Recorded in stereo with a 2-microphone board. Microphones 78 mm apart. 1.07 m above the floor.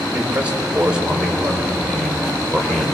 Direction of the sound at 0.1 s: 20° right (ahead or behind).